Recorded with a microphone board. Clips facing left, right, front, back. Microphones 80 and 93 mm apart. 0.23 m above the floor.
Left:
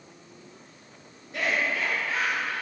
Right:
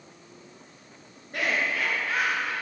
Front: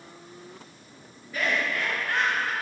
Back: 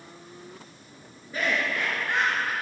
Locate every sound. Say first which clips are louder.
1.3 s laughter: even, even; 120° right, 3.5 m; by 2.5 s 110° right, 3 m